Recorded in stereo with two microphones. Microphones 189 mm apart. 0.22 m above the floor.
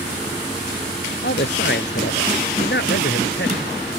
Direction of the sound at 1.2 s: 70° left (ahead or behind).